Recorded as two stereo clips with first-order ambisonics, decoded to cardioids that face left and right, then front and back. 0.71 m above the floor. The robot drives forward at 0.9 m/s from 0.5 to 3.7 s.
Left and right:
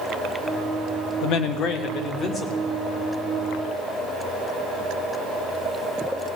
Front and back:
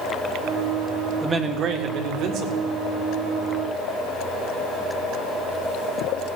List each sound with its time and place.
1.2 s a man speaking: 110° left, 0.8 m; by 2.7 s 160° left, 1.7 m